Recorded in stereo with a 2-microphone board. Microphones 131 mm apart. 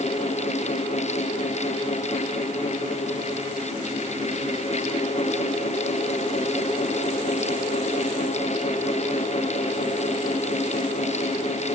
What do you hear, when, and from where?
Only background noise.